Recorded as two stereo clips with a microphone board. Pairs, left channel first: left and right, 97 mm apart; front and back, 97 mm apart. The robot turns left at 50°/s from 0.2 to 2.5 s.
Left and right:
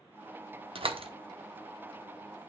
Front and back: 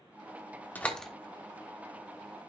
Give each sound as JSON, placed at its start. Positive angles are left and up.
{"t": 0.8, "sound": "a door slam", "azimuth_deg": -70, "distance_m": 1.0}